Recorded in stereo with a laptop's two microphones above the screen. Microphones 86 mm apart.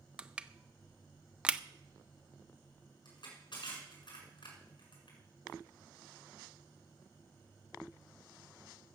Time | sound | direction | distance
0.2 | crushing | 10° right (ahead or behind) | 0.6 m
3.0 | crushing | 60° left (ahead or behind) | 7 m